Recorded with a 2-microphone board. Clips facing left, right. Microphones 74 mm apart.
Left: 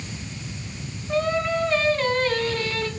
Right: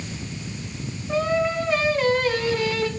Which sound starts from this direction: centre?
Singing, at 1.1 s.